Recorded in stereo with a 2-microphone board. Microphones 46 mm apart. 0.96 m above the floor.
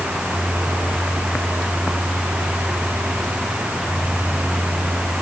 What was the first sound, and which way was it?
Only background noise.